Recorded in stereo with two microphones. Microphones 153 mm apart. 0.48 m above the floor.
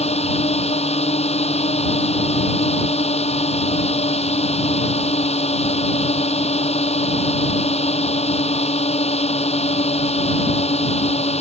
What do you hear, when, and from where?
0.0 s a drone: 50° left (ahead or behind)